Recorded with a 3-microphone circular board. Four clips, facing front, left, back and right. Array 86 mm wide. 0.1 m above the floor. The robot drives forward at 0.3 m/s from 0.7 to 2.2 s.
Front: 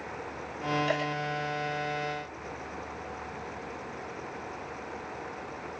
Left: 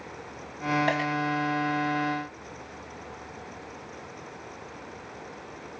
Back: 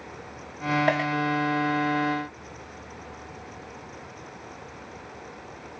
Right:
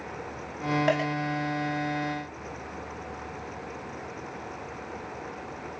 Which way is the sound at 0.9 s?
175° right.